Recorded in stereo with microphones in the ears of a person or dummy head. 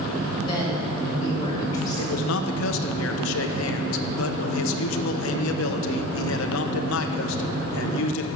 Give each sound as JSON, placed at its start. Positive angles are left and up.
{"t": 0.4, "sound": "a woman speaking", "side_deg": 25, "distance_m": 6.0}
{"t": 2.0, "sound": "a man speaking", "side_deg": 70, "distance_m": 1.1}